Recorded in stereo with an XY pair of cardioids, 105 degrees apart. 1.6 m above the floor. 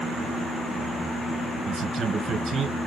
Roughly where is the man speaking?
Ahead right.